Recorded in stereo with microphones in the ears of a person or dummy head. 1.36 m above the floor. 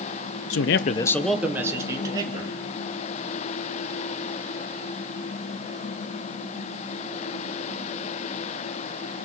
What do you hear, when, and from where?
0.5 s a man speaking: 65° left (ahead or behind), 0.7 m; by 2.5 s 20° right (ahead or behind), 2.5 m